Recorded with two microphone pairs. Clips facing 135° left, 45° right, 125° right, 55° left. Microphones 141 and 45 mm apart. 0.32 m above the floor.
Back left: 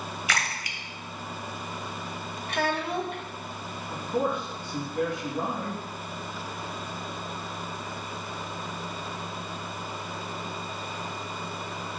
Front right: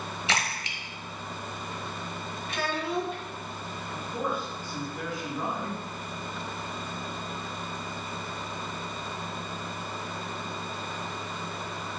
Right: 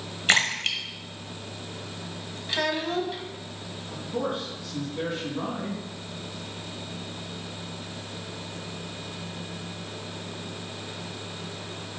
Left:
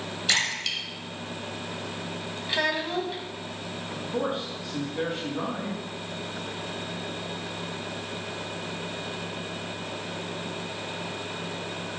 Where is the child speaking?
140° left, 1.5 m.